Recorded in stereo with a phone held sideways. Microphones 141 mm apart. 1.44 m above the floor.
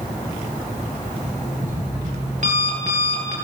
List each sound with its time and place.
1.1 s an alarm clock: 60° right (ahead or behind), 10 m